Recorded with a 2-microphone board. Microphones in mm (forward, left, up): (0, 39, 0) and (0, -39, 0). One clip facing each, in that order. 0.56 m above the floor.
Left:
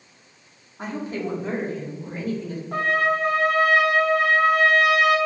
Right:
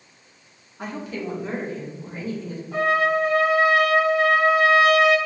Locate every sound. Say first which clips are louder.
0.8 s a woman speaking: left 2 dB; 25° left (ahead or behind), 1.4 m; by 2.6 s 60° left (ahead or behind), 2.5 m
2.7 s a trumpet: right 2 dB; 60° left (ahead or behind), 1.0 m